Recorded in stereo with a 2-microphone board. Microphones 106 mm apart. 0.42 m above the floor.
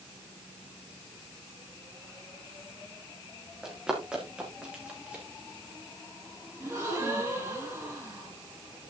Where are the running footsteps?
5° right (ahead or behind), 5 m; by 5.2 s 15° right (ahead or behind), 7 m.